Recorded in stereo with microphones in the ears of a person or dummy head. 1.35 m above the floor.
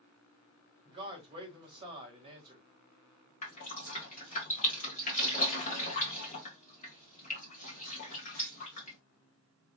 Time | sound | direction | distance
0.8 | a man speaking | 30° right (ahead or behind) | 1.6 m
3.4 | dripping | 40° left (ahead or behind) | 1.4 m